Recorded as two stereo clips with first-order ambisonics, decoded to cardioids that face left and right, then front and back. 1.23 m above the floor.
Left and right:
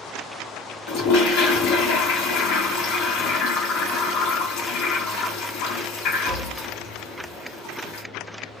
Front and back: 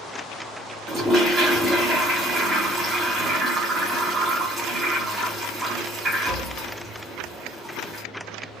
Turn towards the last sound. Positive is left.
turn(degrees=110)